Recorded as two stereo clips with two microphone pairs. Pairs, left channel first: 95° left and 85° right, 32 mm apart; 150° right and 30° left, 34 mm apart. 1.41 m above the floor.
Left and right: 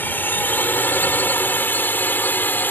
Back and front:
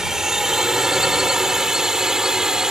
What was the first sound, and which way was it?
A drone, 100° left.